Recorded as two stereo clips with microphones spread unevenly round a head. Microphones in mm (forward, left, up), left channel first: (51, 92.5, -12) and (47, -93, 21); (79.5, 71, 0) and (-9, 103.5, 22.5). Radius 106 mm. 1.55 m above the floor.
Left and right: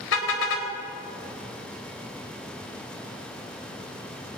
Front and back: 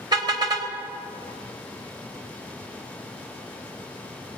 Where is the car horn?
125° left, 4 m.